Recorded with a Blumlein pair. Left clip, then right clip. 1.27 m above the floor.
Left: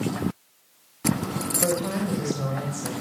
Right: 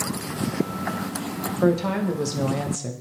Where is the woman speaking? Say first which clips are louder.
Right 5 dB; 70° right, 1.1 m.